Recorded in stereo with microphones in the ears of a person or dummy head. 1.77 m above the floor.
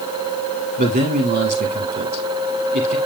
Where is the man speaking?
50° right (ahead or behind), 5.5 m.